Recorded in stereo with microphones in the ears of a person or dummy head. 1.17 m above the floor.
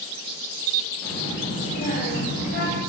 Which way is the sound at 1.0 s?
Centre (ahead or behind).